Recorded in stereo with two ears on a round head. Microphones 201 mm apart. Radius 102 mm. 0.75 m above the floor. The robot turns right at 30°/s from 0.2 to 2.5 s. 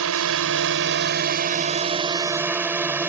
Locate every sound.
0.0 s a drone: 75° right; by 3.1 s 10° right